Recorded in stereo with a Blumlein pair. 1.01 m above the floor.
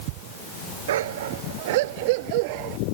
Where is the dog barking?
60° right; by 2.8 s 45° right.